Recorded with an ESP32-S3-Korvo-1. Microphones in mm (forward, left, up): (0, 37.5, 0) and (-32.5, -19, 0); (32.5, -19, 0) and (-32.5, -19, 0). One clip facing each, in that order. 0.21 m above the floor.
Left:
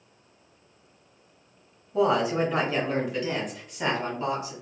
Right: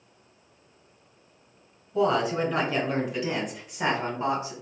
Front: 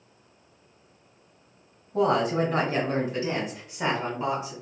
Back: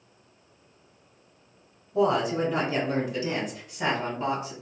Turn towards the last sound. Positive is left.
turn(degrees=-95)